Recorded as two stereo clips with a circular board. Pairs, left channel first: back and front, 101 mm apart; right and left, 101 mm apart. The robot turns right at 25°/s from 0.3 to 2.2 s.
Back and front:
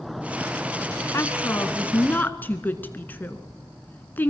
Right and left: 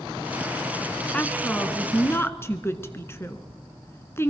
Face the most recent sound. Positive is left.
turn(degrees=-130)